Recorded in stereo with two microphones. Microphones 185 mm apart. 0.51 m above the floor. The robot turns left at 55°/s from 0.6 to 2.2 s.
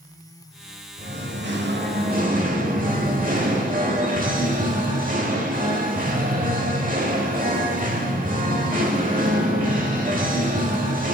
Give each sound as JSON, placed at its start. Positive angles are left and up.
{"t": 1.0, "sound": "singing", "azimuth_deg": -65, "distance_m": 1.0}